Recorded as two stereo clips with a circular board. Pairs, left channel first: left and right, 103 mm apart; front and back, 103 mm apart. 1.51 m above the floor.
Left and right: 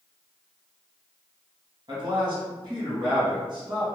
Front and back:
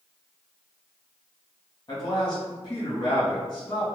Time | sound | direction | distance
1.9 | a man speaking | 50° right | 1.4 m